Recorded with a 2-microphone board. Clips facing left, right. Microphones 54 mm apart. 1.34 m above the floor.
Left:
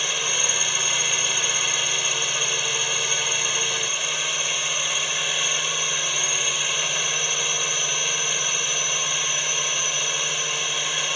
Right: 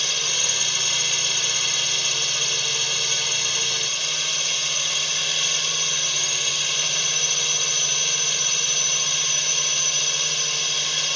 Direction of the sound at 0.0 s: 15° left (ahead or behind).